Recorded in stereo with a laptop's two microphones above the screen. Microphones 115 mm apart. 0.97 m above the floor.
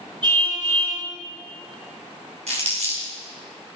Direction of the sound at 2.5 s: 70° right (ahead or behind).